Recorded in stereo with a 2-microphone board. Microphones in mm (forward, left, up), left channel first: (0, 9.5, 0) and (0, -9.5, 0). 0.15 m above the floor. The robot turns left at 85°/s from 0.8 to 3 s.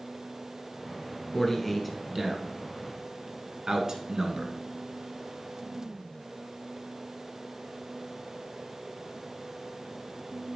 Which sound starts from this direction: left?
A man speaking, at 1.3 s.